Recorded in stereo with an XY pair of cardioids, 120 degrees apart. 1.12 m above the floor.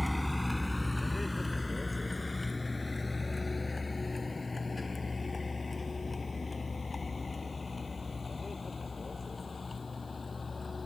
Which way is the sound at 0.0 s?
5° left.